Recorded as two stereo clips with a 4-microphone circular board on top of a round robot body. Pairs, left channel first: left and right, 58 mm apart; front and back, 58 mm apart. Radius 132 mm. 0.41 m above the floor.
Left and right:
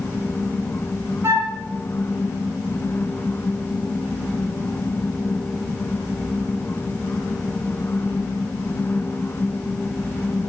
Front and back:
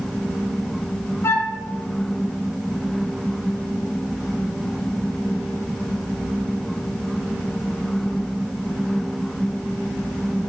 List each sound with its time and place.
1.2 s a flute: 45° right, 1.0 m